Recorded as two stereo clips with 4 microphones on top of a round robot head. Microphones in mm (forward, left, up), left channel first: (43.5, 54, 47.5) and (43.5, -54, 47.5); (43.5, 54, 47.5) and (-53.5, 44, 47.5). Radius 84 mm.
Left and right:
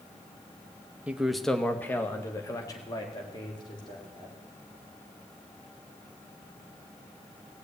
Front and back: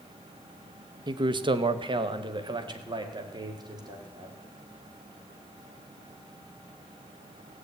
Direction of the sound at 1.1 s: 165° right.